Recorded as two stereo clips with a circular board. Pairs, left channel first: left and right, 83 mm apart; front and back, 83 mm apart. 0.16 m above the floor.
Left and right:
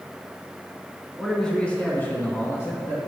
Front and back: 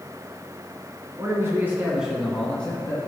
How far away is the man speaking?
About 2.5 m.